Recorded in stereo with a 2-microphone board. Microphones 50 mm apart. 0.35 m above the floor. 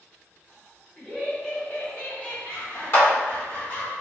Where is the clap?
50° left (ahead or behind), 1.6 m.